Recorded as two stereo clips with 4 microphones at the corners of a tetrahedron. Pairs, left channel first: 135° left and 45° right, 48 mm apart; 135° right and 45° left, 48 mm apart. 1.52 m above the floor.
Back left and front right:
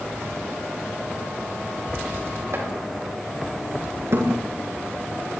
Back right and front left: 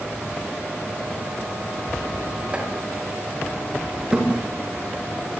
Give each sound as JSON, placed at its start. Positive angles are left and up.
{"t": 2.5, "sound": "chopping", "azimuth_deg": -20, "distance_m": 7.0}
{"t": 4.1, "sound": "a thud", "azimuth_deg": -25, "distance_m": 9.0}